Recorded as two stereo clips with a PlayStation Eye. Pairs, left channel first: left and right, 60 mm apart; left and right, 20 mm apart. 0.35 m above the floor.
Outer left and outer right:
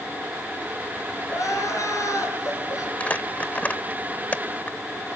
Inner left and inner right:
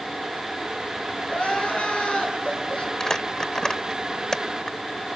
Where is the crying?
70° left (ahead or behind), 6 m.